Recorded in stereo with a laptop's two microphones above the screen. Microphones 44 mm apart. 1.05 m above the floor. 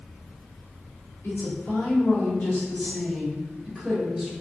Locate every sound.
1.2 s a woman speaking: 65° left (ahead or behind), 1.4 m; by 4.3 s 10° right (ahead or behind), 1.4 m